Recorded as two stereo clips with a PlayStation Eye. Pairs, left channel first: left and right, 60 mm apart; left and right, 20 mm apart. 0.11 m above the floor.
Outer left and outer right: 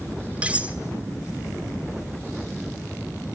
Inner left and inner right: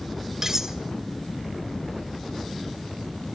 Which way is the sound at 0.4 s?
20° right (ahead or behind).